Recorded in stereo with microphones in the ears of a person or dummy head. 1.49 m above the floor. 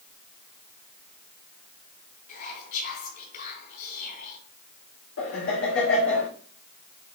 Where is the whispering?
50° left (ahead or behind), 4 m.